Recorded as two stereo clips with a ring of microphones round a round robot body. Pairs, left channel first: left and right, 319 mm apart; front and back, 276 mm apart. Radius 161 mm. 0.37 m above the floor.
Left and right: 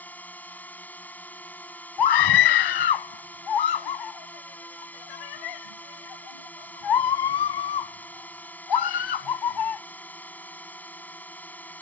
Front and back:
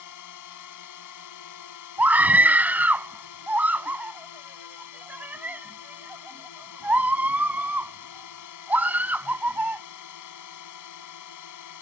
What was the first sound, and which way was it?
A drone, 5° left.